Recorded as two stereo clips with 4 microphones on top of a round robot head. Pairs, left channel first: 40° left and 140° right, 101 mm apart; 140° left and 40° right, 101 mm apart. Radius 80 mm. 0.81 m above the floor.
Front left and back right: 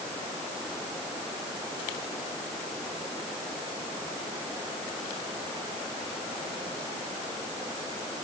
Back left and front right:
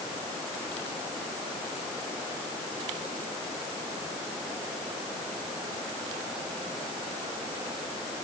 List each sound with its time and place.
Only background noise.